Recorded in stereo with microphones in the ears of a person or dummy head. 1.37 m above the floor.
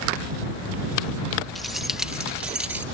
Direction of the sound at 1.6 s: Centre (ahead or behind).